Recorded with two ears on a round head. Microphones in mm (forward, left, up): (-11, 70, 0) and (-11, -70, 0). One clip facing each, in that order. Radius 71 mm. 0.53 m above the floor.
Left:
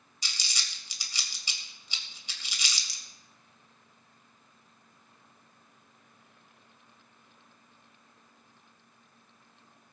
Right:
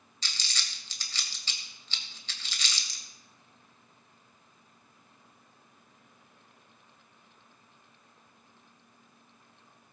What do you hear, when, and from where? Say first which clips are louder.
0.2 s crumpling: even; 10° left (ahead or behind), 2.5 m